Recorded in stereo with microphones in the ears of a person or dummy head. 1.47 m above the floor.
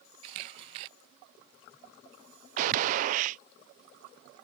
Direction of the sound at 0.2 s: 30° right (ahead or behind).